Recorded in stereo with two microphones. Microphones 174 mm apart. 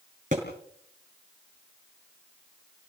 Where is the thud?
45° right (ahead or behind), 5.5 m.